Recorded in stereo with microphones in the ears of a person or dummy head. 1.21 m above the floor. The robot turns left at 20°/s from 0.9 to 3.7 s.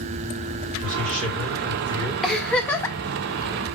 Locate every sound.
0.8 s a man speaking: 40° right (ahead or behind), 4 m; by 2.1 s 15° right (ahead or behind), 4 m
2.2 s a giggle: 5° left (ahead or behind), 0.7 m; by 3.0 s 15° left (ahead or behind), 0.7 m